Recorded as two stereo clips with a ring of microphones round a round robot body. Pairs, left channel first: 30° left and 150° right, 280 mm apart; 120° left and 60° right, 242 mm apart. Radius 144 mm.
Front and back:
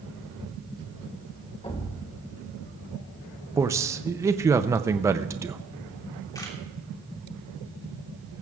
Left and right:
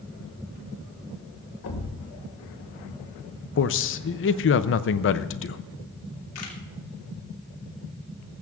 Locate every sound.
1.6 s a thud: 100° left, 1.9 m
3.6 s a man speaking: 135° left, 0.6 m
6.3 s a camera shutter: 110° left, 2.5 m